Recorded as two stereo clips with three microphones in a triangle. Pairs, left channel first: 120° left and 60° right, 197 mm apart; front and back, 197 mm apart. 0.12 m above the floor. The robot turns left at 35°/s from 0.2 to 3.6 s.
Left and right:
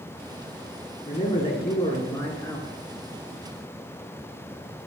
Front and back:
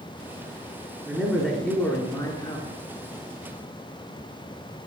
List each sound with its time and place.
1.1 s a man speaking: 100° left, 1.5 m; by 2.7 s 40° left, 1.5 m